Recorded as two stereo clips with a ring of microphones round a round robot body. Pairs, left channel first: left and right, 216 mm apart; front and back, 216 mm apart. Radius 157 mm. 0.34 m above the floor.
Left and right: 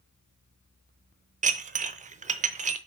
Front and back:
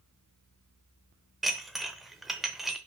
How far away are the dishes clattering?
About 0.6 m.